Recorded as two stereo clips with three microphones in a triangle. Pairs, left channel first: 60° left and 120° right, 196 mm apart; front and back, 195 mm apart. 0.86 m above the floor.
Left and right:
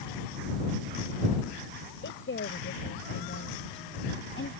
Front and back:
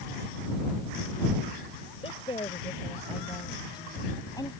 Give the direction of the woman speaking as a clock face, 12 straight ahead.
10 o'clock.